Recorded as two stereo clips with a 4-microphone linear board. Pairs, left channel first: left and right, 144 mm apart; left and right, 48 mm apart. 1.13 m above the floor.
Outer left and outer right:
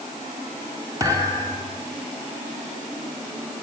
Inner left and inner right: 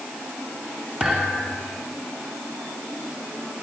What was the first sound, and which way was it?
A thud, 25° right (ahead or behind).